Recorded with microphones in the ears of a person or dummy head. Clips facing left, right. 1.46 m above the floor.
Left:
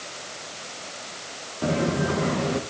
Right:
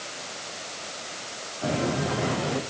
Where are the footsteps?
50° left (ahead or behind), 4 m.